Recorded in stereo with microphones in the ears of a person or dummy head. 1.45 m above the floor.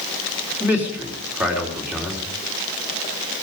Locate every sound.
0.6 s a man speaking: 10° right (ahead or behind), 3.5 m